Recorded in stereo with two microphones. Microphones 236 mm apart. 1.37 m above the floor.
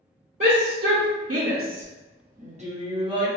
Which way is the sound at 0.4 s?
55° right (ahead or behind).